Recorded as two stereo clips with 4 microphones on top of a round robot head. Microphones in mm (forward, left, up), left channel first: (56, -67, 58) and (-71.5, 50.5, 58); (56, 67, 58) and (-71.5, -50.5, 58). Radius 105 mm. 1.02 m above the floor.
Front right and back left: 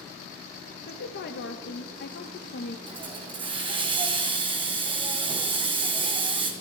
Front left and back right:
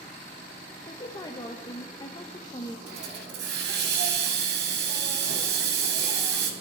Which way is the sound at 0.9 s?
25° right.